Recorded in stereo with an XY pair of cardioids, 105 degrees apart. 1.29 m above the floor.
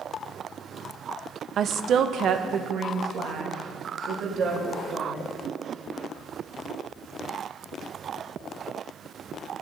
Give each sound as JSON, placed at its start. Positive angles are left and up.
{"t": 1.6, "sound": "a woman speaking", "azimuth_deg": -55, "distance_m": 0.5}